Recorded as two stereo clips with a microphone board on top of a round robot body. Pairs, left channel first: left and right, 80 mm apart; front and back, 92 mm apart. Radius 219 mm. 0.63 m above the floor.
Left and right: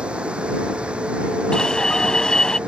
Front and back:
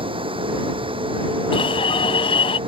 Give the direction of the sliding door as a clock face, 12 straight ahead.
No sliding door in this recording.